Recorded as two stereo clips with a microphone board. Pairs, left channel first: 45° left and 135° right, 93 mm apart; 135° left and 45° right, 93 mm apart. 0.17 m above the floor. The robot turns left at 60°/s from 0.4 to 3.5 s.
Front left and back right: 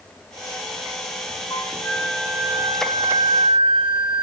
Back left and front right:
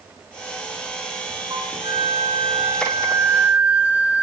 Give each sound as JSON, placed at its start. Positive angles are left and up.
{"t": 1.5, "sound": "a flute", "azimuth_deg": 0, "distance_m": 6.5}